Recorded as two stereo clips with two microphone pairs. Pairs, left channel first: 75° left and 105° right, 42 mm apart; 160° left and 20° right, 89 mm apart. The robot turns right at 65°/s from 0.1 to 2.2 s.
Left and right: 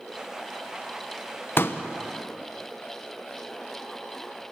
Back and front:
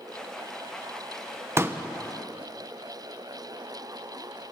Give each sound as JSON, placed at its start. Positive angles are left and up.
{"t": 1.6, "sound": "a pop", "azimuth_deg": 40, "distance_m": 1.0}